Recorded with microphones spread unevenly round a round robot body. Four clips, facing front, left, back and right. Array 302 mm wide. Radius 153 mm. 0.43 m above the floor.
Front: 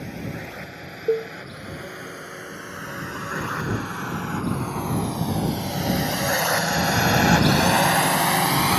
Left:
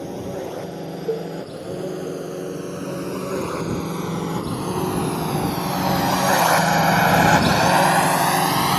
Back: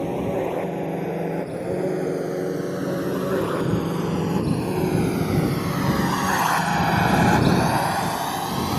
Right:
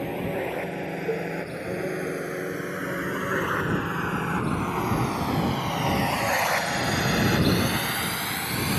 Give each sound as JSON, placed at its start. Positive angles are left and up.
{"t": 0.0, "sound": "a drone", "azimuth_deg": 175}
{"t": 1.1, "sound": "a cowbell", "azimuth_deg": 15}